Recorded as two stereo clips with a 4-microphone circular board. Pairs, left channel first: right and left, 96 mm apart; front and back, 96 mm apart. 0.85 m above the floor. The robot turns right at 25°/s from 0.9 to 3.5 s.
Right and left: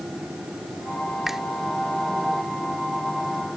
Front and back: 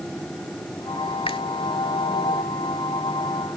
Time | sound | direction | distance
1.3 | a finger snap | 5° left | ?